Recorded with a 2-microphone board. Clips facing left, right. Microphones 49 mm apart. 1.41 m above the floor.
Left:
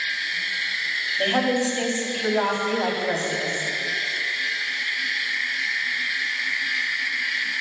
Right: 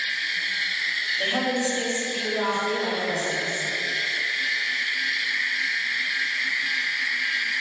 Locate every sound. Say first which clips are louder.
1.2 s a woman speaking: left 5 dB; 30° left (ahead or behind), 3 m; by 3.7 s 55° left (ahead or behind), 3.5 m